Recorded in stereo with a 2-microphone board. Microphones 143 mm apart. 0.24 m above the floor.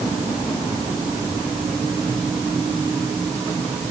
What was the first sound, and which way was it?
Only background noise.